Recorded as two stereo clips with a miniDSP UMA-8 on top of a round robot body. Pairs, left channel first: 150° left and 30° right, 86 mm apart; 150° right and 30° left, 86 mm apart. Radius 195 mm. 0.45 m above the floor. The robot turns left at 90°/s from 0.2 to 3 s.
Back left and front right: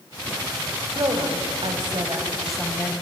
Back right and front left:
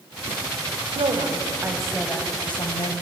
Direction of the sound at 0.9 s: 20° left.